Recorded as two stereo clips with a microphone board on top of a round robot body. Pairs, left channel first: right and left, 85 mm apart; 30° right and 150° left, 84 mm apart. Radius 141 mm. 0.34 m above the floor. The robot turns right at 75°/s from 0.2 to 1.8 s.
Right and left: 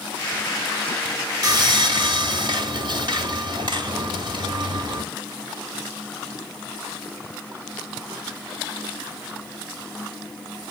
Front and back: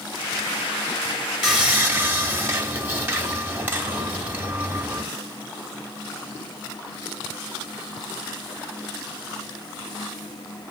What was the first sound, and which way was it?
Sawing, 60° left.